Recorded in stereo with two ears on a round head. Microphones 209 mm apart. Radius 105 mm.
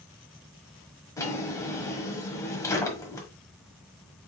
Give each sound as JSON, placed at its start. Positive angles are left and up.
{"t": 1.2, "sound": "a drawer", "side_deg": 15, "distance_m": 1.4}